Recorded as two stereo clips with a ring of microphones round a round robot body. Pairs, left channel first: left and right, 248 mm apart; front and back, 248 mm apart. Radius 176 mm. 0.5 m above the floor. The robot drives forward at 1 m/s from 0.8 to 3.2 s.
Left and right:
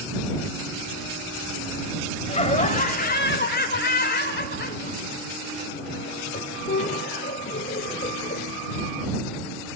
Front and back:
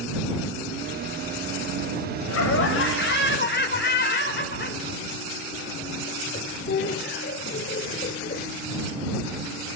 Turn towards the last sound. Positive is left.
turn(degrees=40)